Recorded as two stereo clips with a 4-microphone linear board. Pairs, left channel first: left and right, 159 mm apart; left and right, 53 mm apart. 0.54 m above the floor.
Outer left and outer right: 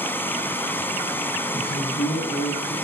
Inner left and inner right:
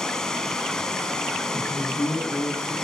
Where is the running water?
10° left (ahead or behind), 3 m.